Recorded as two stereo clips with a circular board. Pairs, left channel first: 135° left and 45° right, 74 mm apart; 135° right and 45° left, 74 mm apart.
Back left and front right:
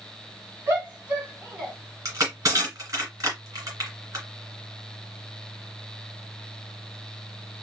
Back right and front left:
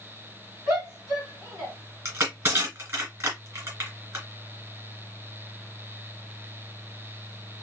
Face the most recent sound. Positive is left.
turn(degrees=-5)